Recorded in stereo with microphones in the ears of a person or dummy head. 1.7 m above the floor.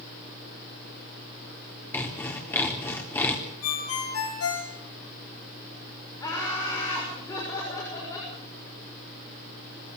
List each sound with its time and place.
1.9 s sawing: 10° left (ahead or behind), 3.5 m
3.6 s a ringtone: 80° left, 6.5 m
6.2 s laughter: 20° left (ahead or behind), 6.5 m